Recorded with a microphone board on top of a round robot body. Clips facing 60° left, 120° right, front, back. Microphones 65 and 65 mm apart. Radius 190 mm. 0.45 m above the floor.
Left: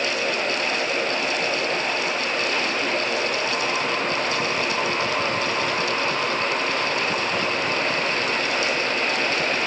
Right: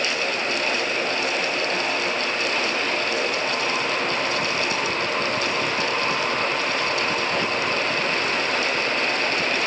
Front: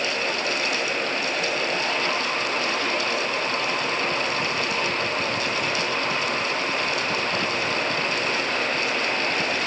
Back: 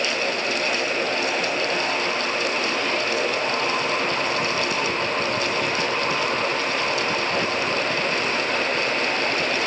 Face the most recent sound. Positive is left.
No sound to turn to.